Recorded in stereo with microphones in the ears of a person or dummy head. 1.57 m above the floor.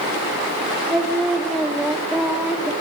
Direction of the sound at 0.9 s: 5° right (ahead or behind).